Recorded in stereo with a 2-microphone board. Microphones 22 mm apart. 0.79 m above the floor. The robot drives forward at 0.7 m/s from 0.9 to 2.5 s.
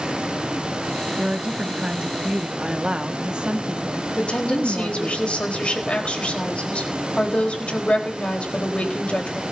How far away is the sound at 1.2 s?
About 1.6 m.